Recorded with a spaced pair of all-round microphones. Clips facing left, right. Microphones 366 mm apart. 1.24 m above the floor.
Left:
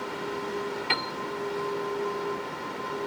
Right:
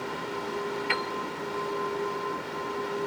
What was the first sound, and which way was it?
A piano, 50° left (ahead or behind).